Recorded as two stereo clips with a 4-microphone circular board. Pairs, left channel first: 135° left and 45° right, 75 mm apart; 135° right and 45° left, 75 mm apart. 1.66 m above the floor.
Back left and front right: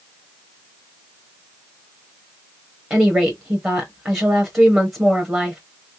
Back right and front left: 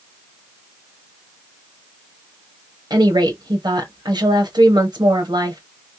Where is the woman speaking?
20° left, 1.2 m.